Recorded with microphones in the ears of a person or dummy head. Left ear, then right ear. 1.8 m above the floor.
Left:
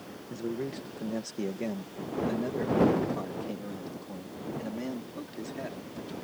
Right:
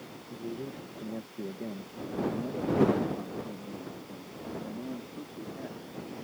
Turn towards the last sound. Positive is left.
turn(degrees=50)  # may be behind; listen again after turning